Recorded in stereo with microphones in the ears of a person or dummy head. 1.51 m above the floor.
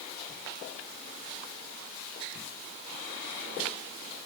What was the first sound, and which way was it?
Only background noise.